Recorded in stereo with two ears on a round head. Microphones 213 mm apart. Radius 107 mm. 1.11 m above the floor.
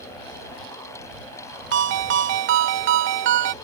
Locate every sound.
1.7 s a ringtone: 50° right (ahead or behind)